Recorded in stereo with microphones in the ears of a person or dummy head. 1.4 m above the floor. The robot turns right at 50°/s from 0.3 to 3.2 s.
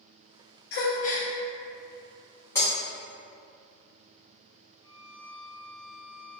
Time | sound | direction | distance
0.7 | a gasp | 50° left (ahead or behind) | 0.5 m
2.5 | breaking glass | 10° left (ahead or behind) | 1.3 m
4.8 | a violin | 20° right (ahead or behind) | 1.3 m